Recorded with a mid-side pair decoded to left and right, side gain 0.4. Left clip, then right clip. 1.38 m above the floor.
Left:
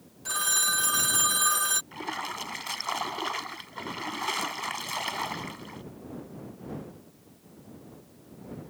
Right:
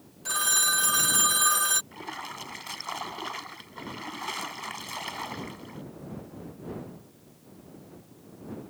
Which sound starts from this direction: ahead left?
A splash, at 1.9 s.